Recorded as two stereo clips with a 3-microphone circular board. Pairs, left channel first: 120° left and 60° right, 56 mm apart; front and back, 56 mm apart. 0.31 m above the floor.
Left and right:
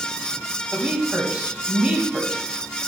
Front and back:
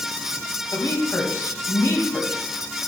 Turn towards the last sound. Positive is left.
turn(degrees=10)